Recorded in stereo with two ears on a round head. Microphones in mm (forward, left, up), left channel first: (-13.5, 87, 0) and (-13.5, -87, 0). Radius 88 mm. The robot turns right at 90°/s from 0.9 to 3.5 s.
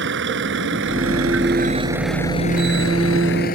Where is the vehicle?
65° right (ahead or behind); by 3.6 s 50° left (ahead or behind).